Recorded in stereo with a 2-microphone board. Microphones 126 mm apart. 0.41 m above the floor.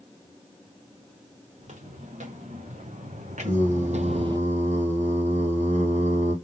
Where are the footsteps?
65° right (ahead or behind), 3 m; by 4.4 s 30° right (ahead or behind), 0.5 m.